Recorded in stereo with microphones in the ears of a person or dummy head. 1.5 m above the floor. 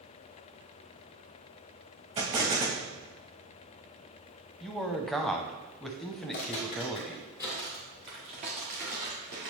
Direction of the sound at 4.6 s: Centre (ahead or behind).